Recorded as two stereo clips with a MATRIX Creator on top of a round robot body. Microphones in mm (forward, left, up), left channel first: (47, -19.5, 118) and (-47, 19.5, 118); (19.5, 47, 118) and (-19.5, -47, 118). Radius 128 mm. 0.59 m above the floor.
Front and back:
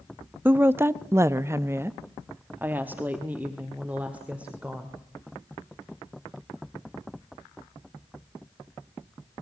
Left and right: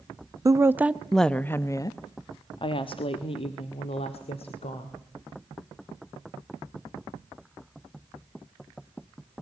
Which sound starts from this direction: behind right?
A woman speaking, at 0.5 s.